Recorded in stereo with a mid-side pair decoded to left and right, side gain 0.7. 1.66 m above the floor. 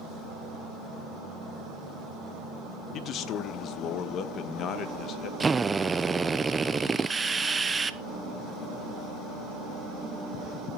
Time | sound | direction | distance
2.9 | a man speaking | 50° left | 1.5 m
5.4 | a drill | 15° right | 1.0 m